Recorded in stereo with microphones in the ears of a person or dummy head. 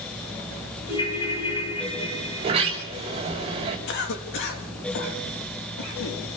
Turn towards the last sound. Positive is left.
turn(degrees=65)  # may be behind; listen again after turning